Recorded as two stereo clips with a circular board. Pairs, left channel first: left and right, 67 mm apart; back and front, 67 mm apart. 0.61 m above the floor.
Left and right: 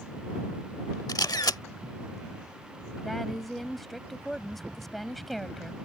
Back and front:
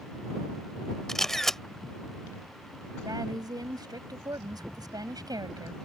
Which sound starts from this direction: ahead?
A woman speaking, at 3.0 s.